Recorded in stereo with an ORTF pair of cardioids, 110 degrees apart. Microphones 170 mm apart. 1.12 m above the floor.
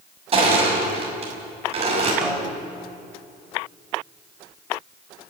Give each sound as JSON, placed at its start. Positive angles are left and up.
{"t": 0.3, "sound": "crushing", "azimuth_deg": -35, "distance_m": 6.5}
{"t": 2.2, "sound": "a snare drum", "azimuth_deg": -5, "distance_m": 6.0}